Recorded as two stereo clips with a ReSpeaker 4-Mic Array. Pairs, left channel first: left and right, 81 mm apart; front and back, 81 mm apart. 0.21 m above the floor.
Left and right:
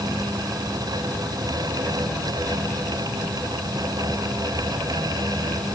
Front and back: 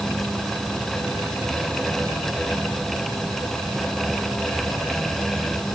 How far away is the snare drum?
No snare drum in this recording.